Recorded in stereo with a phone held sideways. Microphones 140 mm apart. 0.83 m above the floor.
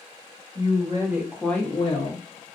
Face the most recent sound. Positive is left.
turn(degrees=60)  # may be behind; listen again after turning